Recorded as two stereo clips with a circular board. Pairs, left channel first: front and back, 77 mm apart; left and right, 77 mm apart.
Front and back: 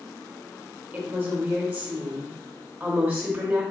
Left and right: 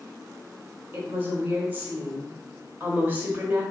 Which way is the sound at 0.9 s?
130° right.